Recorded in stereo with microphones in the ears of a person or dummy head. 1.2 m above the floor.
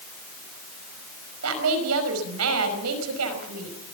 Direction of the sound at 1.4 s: 85° right.